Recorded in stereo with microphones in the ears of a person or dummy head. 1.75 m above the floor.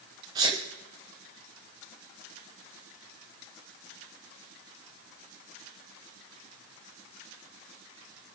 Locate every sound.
0.3 s a sneeze: 25° right (ahead or behind), 1.1 m